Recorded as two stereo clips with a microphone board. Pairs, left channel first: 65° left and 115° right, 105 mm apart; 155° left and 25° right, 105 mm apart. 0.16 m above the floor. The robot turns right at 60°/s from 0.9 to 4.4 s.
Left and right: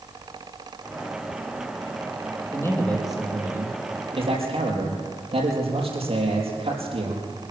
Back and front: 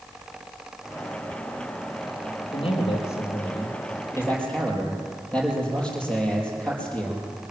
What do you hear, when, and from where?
2.5 s a man speaking: 125° left, 5.5 m; by 7.3 s 125° right, 5.5 m